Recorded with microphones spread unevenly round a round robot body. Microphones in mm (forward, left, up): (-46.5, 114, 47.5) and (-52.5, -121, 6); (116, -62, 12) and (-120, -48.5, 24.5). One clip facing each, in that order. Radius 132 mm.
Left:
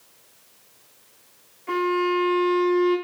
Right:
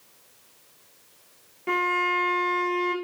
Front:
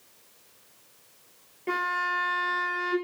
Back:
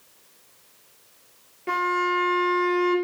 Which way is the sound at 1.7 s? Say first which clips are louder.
Left 7 dB, back 7 dB; 100° right.